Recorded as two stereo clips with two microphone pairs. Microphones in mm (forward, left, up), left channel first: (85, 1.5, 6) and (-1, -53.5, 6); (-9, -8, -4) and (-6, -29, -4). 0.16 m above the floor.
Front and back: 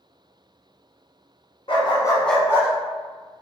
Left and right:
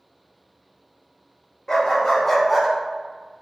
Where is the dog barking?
40° left, 1.0 m; by 2.7 s 165° right, 0.7 m.